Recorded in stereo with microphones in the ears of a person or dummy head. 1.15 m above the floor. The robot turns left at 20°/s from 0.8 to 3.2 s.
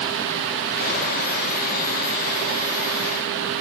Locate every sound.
Only background noise.